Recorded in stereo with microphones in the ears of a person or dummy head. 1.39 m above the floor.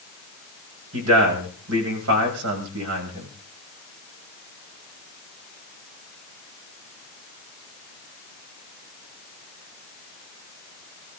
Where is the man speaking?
90° right, 7.5 m.